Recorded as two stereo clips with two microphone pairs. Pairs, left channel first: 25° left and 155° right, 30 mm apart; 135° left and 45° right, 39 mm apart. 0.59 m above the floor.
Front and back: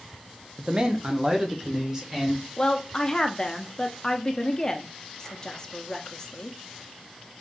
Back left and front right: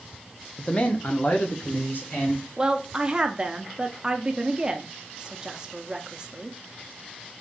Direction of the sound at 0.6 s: 175° left.